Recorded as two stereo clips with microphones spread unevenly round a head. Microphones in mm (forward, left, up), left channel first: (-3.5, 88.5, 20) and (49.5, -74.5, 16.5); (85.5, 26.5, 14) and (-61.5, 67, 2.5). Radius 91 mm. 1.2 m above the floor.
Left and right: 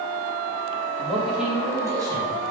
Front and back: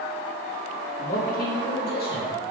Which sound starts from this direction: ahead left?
A man speaking, at 1.0 s.